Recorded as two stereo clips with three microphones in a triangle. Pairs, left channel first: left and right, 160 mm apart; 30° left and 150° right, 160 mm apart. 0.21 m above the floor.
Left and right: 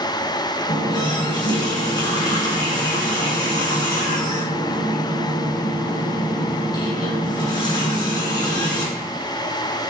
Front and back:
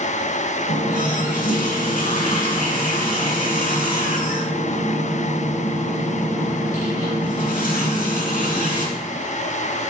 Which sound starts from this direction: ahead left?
A running tap, at 0.7 s.